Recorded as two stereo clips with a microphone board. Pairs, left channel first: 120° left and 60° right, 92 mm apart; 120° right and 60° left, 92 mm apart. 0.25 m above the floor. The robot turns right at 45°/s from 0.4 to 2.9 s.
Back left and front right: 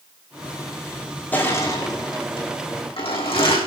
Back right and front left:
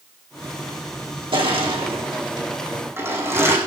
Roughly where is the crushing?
Ahead left.